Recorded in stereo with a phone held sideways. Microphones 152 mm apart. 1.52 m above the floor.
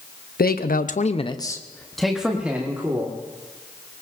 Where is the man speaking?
85° left, 0.9 m; by 3.1 s 15° right (ahead or behind), 2.0 m.